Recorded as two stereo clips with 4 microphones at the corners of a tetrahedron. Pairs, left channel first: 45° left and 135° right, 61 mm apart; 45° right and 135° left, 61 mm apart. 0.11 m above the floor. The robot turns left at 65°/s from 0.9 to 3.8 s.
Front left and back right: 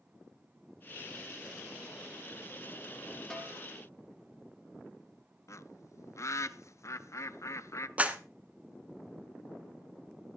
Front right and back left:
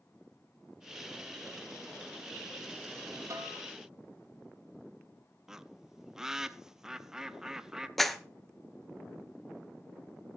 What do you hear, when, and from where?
3.3 s a snare drum: 120° left, 3 m; by 3.6 s 100° left, 3 m
5.5 s a bird: 55° left, 0.6 m
8.0 s a clap: 125° right, 1.1 m